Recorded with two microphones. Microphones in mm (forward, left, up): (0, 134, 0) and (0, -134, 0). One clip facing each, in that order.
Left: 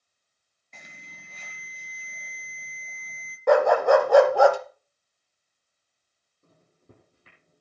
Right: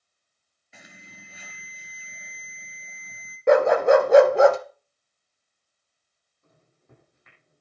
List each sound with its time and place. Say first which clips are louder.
0.7 s an alarm: right 2 dB; 10° right (ahead or behind), 2 m
3.5 s a dog barking: right 2 dB; 25° right (ahead or behind), 1.2 m
6.4 s a microwave: left 3 dB; 35° left (ahead or behind), 7.5 m